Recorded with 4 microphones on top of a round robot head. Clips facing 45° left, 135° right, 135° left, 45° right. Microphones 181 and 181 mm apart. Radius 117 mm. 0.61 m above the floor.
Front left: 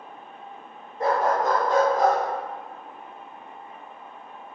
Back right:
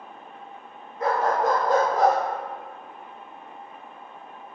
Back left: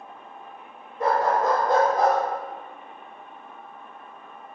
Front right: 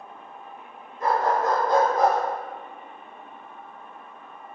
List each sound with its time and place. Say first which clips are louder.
1.0 s a dog barking: even, back left 1 dB; 100° left, 0.6 m; by 2.2 s 155° right, 0.7 m